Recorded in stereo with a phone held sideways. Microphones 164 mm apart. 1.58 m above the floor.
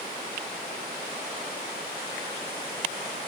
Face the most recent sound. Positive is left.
No sound to turn to.